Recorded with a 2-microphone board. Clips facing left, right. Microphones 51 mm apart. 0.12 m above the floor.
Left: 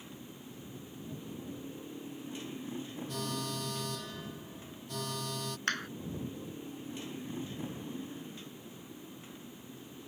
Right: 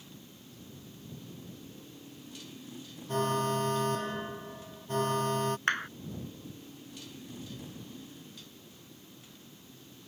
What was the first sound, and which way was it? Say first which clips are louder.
A motorcycle: left 4 dB; 25° left (ahead or behind).